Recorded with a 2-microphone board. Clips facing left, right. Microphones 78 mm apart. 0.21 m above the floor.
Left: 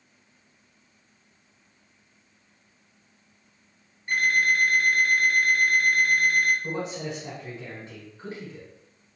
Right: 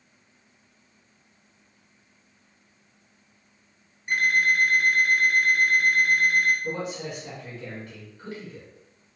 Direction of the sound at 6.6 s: 25° left (ahead or behind).